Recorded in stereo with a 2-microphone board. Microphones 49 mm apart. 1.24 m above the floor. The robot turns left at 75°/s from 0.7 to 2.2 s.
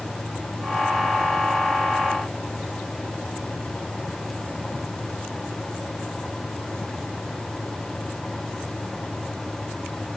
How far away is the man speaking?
I don't hear a man speaking.